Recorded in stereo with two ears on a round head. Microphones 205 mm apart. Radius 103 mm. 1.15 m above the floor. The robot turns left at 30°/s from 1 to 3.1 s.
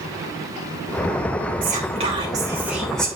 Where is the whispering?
140° right, 2.5 m; by 3.1 s 175° left, 2.5 m.